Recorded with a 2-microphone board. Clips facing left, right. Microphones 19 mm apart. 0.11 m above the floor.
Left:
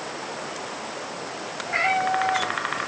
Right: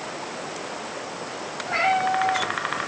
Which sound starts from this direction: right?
A cat meowing, at 1.6 s.